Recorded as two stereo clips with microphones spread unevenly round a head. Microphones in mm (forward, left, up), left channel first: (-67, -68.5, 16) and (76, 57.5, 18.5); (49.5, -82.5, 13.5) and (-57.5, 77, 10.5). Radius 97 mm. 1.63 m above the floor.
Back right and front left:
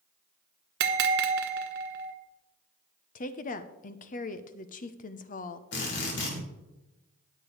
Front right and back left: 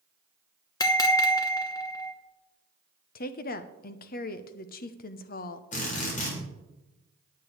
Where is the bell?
15° left, 1.1 m.